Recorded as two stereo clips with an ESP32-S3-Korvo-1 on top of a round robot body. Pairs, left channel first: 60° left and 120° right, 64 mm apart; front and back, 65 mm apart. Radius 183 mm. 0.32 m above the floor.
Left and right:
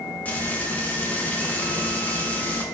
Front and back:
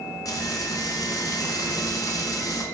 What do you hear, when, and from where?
0.2 s frying: straight ahead, 0.8 m